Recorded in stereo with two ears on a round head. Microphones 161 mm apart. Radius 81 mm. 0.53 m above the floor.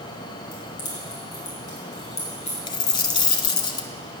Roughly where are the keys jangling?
Left.